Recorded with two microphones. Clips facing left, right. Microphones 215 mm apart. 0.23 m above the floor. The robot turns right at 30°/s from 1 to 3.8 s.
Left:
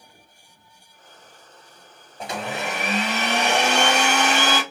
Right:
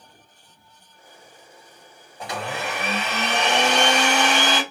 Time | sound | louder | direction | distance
2.2 | a blender | left 1 dB | 25° left (ahead or behind) | 1.6 m